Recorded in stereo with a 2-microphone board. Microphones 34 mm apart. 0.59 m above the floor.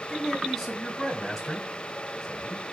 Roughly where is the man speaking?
Centre.